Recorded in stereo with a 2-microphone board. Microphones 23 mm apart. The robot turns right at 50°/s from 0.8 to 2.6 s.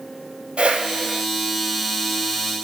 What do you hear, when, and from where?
0.6 s a whoosh: 65° right (ahead or behind), 3 m; by 1.2 s 60° right (ahead or behind), 3 m